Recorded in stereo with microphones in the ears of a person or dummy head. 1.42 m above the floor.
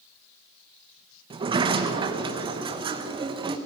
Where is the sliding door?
30° right (ahead or behind), 0.9 m.